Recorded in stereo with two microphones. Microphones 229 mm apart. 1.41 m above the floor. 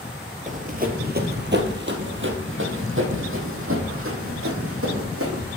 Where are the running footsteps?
35° right (ahead or behind), 1.6 m; by 5.5 s 70° right (ahead or behind), 4 m.